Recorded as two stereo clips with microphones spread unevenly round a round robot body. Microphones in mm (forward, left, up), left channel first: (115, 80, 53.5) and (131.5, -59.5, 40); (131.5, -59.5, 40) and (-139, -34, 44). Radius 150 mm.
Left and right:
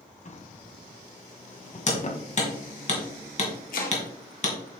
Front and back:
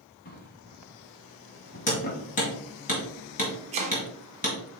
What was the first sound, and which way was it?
A drawer, 55° left.